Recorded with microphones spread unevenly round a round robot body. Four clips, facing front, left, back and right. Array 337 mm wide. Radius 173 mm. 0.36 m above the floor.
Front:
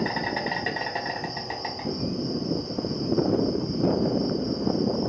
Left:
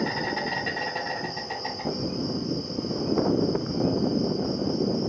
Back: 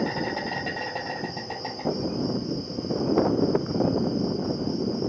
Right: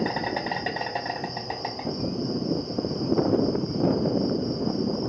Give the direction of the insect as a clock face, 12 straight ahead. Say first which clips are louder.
Right 1 dB, even; 4 o'clock.